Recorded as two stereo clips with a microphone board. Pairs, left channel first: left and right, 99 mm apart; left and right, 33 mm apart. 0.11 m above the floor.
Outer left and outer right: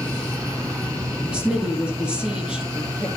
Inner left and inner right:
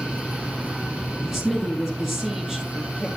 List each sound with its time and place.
1.3 s a woman speaking: 10° right (ahead or behind), 2.5 m